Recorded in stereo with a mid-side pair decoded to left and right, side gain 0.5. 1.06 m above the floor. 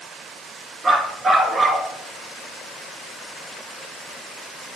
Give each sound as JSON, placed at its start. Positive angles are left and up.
{"t": 0.8, "sound": "a dog barking", "azimuth_deg": -30, "distance_m": 5.0}